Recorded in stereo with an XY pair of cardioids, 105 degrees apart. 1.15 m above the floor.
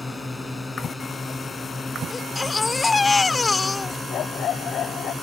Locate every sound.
0.0 s a drone: 20° left; by 5.2 s 25° left
2.1 s a baby crying: 25° left
4.1 s a dog barking: 65° left